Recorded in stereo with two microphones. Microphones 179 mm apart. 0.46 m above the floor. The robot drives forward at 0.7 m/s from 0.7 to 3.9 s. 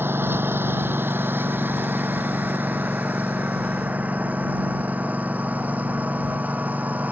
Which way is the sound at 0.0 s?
10° right (ahead or behind).